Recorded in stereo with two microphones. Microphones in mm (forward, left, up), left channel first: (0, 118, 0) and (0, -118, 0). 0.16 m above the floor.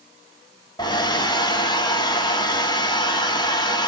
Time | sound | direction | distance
0.8 | a hair dryer | 20° left (ahead or behind) | 0.7 m